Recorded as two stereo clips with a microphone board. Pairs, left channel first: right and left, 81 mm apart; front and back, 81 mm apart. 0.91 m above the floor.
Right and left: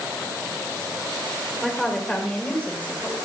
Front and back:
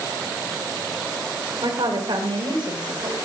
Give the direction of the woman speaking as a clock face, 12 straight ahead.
6 o'clock.